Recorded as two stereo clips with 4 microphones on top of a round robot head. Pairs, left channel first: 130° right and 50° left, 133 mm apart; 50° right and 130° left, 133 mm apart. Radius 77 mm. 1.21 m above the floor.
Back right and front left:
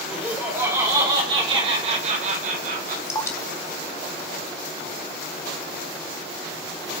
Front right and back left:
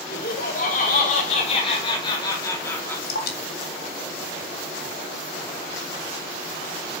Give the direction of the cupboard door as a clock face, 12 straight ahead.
No cupboard door in this recording.